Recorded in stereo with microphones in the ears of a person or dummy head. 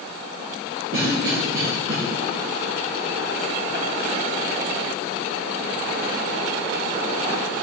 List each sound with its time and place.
0.9 s a cough: 65° right (ahead or behind), 2.0 m